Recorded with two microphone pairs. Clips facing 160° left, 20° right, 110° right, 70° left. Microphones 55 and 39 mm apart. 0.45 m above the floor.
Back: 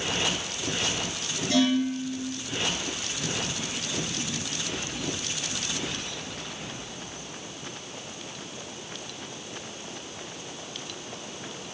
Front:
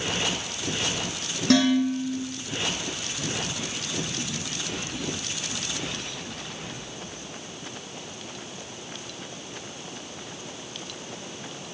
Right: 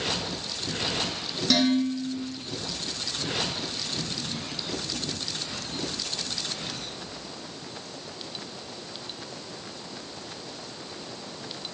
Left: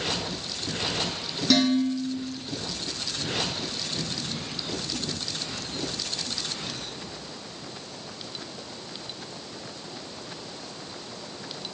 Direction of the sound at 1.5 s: 10° right.